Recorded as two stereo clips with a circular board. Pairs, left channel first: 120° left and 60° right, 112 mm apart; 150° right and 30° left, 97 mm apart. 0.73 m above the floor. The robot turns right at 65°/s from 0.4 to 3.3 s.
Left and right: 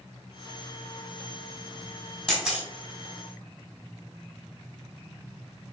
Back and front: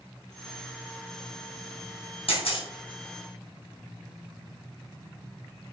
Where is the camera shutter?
160° right, 3 m; by 2.7 s 135° right, 3 m.